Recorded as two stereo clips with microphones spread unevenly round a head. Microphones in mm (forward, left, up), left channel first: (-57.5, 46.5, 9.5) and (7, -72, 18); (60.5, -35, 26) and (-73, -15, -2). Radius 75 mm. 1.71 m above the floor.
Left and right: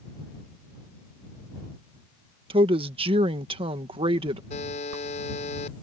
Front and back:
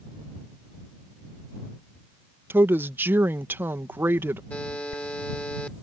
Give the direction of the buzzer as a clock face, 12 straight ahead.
10 o'clock.